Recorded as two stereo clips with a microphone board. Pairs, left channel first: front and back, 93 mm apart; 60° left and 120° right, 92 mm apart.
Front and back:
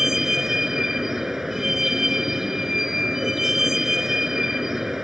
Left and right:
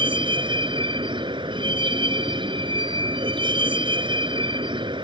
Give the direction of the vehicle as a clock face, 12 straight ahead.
3 o'clock.